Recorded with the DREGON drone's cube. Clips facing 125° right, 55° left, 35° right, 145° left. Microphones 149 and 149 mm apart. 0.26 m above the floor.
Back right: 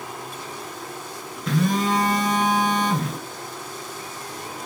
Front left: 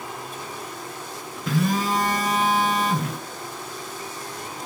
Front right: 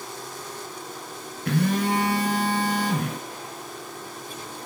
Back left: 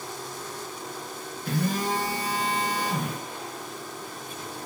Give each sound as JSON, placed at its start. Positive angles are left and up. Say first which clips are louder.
{"t": 1.5, "sound": "a phone buzzing", "louder": "back right 1 dB, front right 4 dB", "azimuth_deg": -30, "distance_m": 1.7}